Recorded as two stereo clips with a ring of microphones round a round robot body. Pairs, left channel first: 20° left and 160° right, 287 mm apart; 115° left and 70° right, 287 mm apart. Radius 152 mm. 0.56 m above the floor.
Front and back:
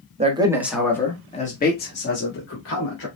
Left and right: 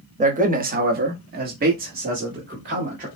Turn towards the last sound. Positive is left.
turn(degrees=-5)